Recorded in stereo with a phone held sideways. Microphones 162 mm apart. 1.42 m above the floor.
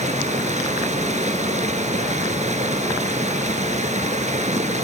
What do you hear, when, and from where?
0.0 s running water: 45° right (ahead or behind), 2.5 m